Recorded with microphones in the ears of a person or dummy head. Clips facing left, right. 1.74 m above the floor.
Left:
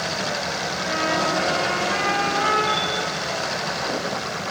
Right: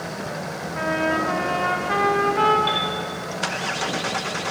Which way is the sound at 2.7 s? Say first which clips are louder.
Even; 60° right (ahead or behind).